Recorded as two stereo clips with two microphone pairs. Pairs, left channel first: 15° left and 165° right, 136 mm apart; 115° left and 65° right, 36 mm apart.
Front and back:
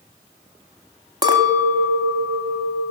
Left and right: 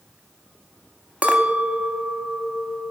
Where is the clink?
120° right, 0.9 m.